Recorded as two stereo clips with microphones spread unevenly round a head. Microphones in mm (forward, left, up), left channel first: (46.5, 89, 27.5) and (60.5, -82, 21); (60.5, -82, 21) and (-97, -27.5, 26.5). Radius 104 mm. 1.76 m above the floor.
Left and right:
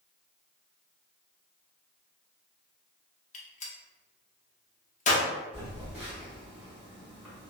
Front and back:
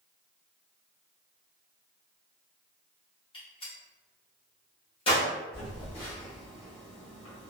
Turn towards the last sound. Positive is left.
turn(degrees=-10)